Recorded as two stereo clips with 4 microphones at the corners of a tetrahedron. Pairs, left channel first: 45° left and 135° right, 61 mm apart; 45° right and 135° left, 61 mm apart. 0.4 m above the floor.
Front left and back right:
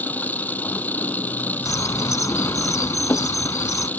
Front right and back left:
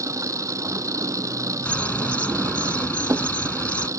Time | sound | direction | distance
0.0 | an engine running | 105° left | ?
1.6 | a bird | 20° left | ?